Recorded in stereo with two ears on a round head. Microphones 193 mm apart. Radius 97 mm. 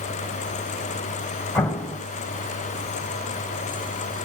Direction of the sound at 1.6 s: 5° left (ahead or behind).